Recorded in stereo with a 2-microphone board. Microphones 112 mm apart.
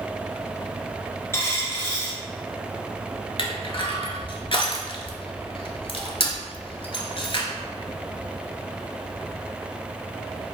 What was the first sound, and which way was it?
A dropped coin, 25° left (ahead or behind).